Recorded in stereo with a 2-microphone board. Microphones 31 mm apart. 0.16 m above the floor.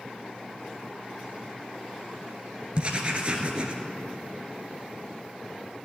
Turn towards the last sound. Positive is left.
turn(degrees=-35)  # may be behind; listen again after turning